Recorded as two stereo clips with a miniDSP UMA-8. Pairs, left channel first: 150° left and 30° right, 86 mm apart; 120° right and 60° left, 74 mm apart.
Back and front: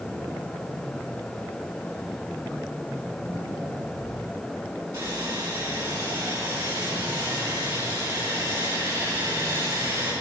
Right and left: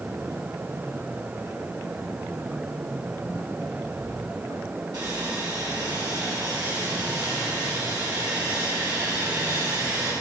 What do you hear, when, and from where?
4.9 s sawing: 30° left, 6 m